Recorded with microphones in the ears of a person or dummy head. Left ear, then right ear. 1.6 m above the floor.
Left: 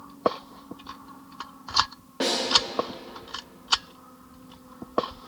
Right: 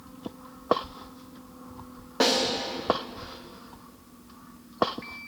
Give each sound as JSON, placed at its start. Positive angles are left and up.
{"t": 2.2, "sound": "a snare drum", "side_deg": -30, "distance_m": 0.9}